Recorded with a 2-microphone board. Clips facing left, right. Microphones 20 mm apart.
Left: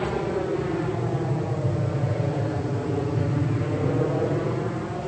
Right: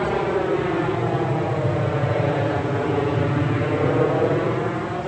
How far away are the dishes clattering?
I don't hear dishes clattering.